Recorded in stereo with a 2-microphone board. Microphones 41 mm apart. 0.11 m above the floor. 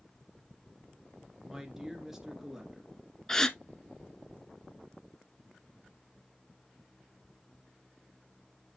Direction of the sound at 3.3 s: 15° left (ahead or behind).